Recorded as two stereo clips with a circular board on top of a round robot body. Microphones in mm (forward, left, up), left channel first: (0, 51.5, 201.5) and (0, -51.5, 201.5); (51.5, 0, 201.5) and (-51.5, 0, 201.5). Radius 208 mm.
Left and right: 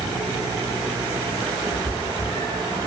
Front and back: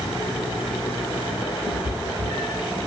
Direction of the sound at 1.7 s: 135° right.